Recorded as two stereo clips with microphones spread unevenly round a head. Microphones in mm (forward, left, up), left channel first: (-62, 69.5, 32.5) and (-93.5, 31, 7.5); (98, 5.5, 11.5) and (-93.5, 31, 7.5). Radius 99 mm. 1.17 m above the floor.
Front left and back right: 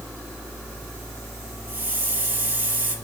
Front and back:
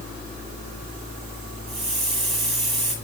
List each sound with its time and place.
1.7 s a hiss: 90° right, 6.5 m